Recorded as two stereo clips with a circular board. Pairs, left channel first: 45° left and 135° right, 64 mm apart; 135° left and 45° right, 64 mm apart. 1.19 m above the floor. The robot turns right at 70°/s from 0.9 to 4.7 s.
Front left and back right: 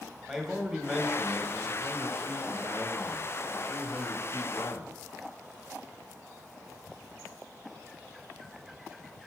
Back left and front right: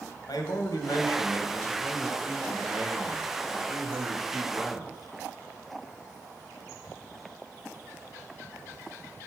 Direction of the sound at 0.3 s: 135° left.